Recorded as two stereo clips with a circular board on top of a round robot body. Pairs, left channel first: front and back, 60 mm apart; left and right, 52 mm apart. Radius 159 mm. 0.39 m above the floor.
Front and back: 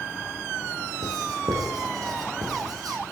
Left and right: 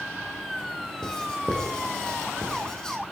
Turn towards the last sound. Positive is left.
turn(degrees=165)